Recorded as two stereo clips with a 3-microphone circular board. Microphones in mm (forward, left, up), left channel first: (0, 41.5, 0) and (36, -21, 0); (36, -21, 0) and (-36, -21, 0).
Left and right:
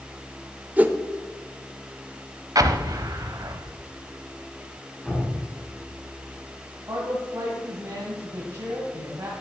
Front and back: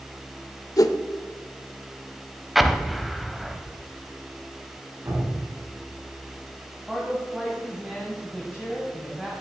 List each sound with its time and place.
0.8 s a whoosh: 5° left, 0.6 m
2.5 s an explosion: 95° right, 0.6 m
5.0 s dripping: 160° right, 5 m
6.9 s a man speaking: 100° right, 2.5 m